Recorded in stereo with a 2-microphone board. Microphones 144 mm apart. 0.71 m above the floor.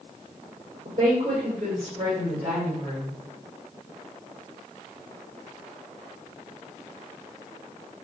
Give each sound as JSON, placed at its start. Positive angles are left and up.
{"t": 0.8, "sound": "a woman speaking", "side_deg": -60, "distance_m": 3.0}